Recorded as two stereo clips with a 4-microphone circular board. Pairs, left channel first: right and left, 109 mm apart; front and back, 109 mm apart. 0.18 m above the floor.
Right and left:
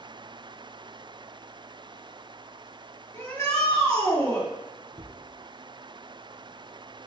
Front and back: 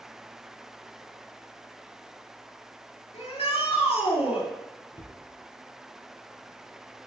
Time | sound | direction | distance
3.1 | a shout | 30° right | 3.5 m
4.9 | a cupboard door | 45° left | 1.6 m